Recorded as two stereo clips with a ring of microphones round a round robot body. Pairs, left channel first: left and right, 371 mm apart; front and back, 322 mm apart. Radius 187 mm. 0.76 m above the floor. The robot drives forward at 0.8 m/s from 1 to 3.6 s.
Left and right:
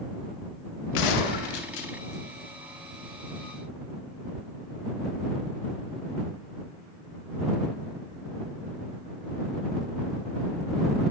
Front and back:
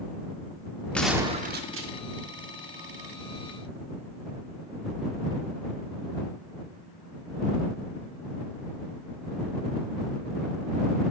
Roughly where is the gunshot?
Left.